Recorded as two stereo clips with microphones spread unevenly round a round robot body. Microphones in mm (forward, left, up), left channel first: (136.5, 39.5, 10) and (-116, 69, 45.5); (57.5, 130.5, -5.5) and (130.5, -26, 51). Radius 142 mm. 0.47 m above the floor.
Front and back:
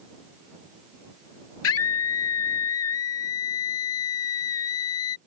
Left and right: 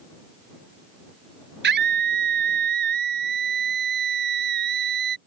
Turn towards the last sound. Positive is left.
turn(degrees=-50)